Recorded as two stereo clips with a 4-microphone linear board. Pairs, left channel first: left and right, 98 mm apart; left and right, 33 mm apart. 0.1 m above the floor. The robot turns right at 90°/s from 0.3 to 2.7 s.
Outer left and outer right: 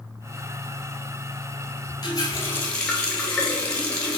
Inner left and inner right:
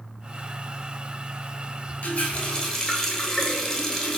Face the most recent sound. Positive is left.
turn(degrees=165)